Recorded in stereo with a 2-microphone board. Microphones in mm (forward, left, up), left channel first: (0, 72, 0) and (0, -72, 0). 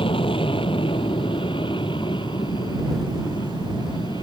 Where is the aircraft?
35° left (ahead or behind); by 4.2 s 30° left (ahead or behind).